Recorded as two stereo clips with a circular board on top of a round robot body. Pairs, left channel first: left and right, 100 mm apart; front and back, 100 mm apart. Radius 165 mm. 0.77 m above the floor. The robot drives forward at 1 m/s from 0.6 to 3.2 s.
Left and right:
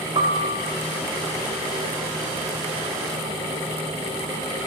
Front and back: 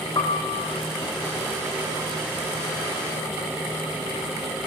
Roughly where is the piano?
Ahead right.